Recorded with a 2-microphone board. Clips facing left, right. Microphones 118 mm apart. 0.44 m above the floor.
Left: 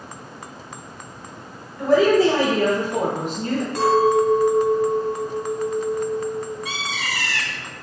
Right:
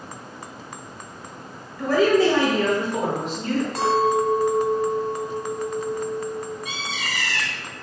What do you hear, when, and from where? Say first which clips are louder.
1.8 s a woman speaking: left 2 dB; 25° left (ahead or behind), 1.4 m; by 3.6 s 60° left (ahead or behind), 1.8 m
3.8 s a clink: left 5 dB; 30° right (ahead or behind), 1.6 m
6.7 s a bird: left 2 dB; 75° left (ahead or behind), 0.7 m